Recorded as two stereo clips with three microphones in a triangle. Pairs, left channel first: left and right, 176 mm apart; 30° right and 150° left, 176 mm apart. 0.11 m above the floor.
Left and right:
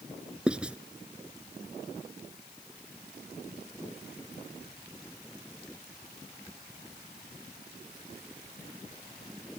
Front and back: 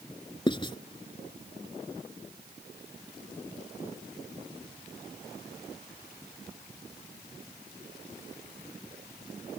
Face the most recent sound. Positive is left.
turn(degrees=-10)